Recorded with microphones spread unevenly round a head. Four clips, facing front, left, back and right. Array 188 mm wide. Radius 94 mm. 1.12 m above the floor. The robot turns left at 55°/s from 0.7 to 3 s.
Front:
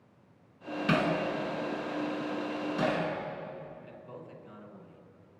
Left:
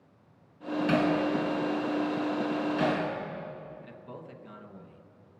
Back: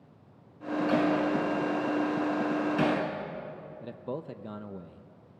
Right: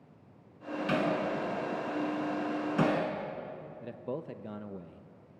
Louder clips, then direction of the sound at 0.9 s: Left 4 dB, back 2 dB; 5° left.